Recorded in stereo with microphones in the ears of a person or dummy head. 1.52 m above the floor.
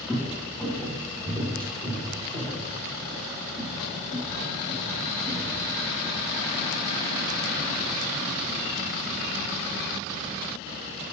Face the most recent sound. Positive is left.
turn(degrees=-45)  # may be behind; listen again after turning